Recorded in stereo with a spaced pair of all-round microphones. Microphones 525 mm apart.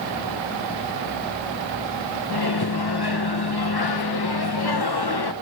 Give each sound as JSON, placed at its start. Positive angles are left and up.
{"t": 2.3, "sound": "a microwave", "side_deg": 45, "distance_m": 0.9}